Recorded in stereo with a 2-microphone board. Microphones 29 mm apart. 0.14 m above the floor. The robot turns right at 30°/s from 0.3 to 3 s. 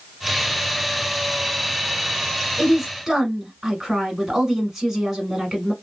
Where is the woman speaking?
10° right (ahead or behind), 1.2 m; by 5.7 s 15° right (ahead or behind), 1.2 m.